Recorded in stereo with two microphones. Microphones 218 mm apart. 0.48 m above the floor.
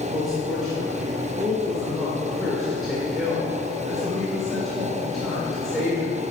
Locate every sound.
0.1 s a woman speaking: centre (ahead or behind), 1.7 m